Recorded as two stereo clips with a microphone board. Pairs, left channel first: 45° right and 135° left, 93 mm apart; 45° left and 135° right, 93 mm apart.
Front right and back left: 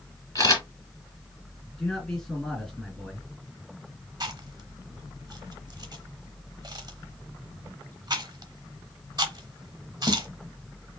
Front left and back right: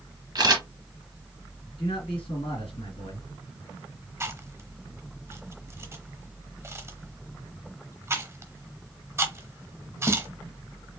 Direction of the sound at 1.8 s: 45° left.